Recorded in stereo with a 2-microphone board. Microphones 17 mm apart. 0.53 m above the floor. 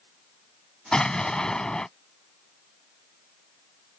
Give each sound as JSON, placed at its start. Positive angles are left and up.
{"t": 0.9, "sound": "an explosion", "side_deg": 45}